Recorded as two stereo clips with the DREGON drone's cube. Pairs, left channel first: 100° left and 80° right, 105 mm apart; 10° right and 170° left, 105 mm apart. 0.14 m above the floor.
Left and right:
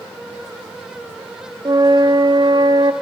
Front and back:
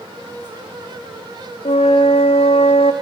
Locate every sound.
1.6 s a flute: 30° right, 2.5 m